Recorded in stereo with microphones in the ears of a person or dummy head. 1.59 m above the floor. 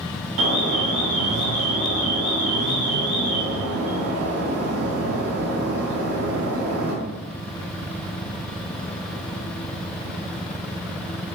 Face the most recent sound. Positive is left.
turn(degrees=-70)  # may be behind; listen again after turning